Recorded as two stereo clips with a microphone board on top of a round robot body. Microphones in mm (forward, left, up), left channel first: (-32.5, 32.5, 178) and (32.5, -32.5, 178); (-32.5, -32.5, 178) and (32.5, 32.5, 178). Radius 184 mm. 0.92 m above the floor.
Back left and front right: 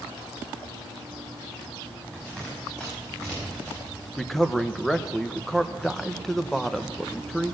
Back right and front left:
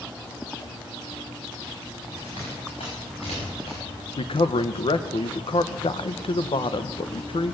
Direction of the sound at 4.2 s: 140° right.